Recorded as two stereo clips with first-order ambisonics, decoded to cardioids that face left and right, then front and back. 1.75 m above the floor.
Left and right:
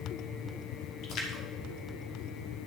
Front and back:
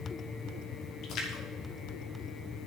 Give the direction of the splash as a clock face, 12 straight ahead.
10 o'clock.